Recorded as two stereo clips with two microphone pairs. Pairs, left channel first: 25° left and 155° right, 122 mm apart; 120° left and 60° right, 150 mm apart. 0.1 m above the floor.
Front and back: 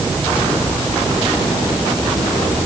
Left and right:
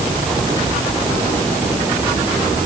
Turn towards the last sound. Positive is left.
No sound to turn to.